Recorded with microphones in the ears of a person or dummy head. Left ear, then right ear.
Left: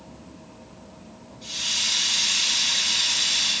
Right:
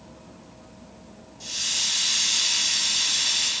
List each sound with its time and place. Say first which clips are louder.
1.4 s a hiss: left 1 dB; 85° right, 5.5 m